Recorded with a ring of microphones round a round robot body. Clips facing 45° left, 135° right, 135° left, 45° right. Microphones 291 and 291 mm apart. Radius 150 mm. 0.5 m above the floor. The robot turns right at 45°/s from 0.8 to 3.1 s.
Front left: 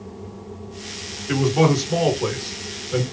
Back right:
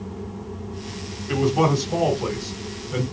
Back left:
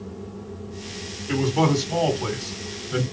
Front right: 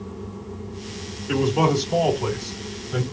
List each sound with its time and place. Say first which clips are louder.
1.3 s a man speaking: front left 2 dB, front right 1 dB; 70° left, 2 m; by 3.0 s 145° left, 2 m